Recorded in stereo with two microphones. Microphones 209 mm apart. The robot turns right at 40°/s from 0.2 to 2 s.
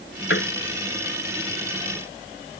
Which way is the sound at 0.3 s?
65° left (ahead or behind).